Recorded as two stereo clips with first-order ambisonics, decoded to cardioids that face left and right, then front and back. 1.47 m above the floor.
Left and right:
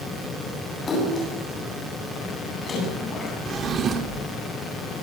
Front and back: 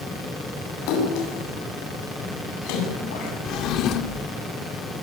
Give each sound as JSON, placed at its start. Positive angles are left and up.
{"t": 0.9, "sound": "a splash", "azimuth_deg": 20, "distance_m": 9.0}
{"t": 3.5, "sound": "a drawer", "azimuth_deg": -30, "distance_m": 1.6}